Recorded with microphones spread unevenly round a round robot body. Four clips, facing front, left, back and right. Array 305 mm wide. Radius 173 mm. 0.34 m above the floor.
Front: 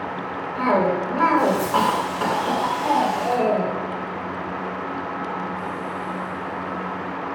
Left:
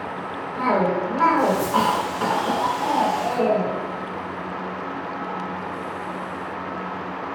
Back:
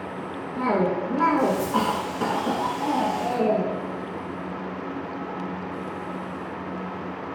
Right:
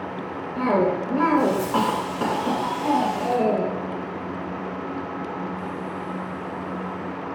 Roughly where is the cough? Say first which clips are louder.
Even, front 3 dB; behind right.